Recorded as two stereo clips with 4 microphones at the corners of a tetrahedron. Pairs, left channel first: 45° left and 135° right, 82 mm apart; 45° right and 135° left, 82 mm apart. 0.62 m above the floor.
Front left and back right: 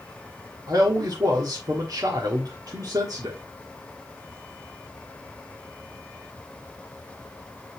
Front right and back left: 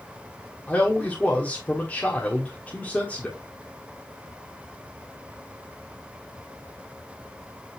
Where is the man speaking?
110° right, 1.3 m.